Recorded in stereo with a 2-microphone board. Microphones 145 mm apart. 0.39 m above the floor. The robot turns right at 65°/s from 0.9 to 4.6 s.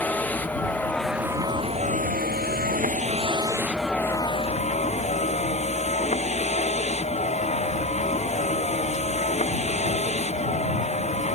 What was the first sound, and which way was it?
A vehicle, 170° left.